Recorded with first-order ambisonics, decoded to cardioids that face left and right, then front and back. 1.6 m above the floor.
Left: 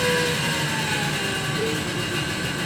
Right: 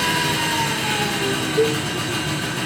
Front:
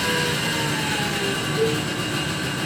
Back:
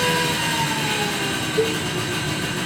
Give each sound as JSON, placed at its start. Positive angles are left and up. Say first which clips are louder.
{"t": 0.0, "sound": "an engine running", "louder": "right 2 dB, back 2 dB", "azimuth_deg": -120, "distance_m": 5.5}
{"t": 1.6, "sound": "a cowbell", "louder": "right 10 dB, back 1 dB", "azimuth_deg": -105, "distance_m": 5.5}